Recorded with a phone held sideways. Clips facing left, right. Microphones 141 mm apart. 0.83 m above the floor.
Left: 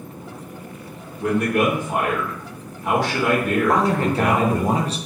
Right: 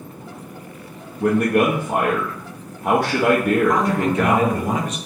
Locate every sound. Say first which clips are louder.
1.2 s a man speaking: right 3 dB; 55° right (ahead or behind), 0.6 m
3.7 s a man speaking: even; 30° left (ahead or behind), 0.5 m